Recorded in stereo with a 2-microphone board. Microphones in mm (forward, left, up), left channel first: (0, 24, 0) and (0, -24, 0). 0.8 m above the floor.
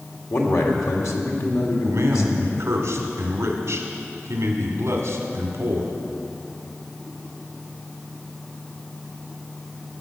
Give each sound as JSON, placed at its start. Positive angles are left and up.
{"t": 0.3, "sound": "a man speaking", "side_deg": 75, "distance_m": 2.0}
{"t": 1.9, "sound": "a man speaking", "side_deg": -65, "distance_m": 1.9}